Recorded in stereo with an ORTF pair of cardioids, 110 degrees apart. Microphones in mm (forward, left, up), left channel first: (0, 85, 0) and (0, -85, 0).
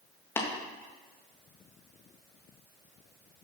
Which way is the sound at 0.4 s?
15° left.